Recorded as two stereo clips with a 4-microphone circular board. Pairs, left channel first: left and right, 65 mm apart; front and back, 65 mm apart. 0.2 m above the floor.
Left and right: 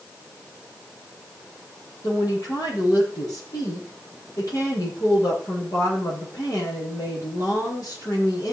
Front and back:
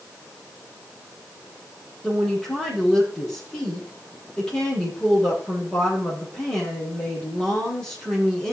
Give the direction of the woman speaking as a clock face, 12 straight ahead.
9 o'clock.